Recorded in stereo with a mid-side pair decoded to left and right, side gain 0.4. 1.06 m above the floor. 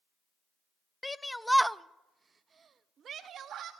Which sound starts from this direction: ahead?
A shout, at 1.0 s.